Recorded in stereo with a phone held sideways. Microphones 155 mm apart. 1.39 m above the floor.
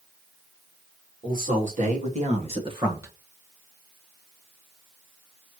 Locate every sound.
1.2 s a man speaking: 65° right (ahead or behind), 3.5 m; by 3.1 s 15° right (ahead or behind), 1.2 m